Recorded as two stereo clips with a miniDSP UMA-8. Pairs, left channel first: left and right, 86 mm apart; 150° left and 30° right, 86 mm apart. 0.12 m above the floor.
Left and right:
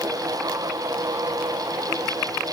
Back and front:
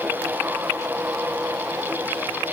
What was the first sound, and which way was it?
Only background noise.